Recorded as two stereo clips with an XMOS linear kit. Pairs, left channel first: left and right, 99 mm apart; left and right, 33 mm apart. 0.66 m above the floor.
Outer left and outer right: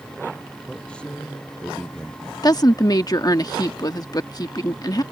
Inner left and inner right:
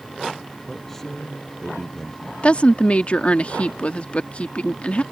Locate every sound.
0.7 s a man speaking: 10° left (ahead or behind)
2.4 s a woman speaking: 40° left (ahead or behind)